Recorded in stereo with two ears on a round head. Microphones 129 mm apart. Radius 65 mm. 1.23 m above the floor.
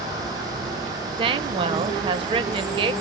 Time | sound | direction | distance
1.2 | a woman speaking | 35° right (ahead or behind) | 0.7 m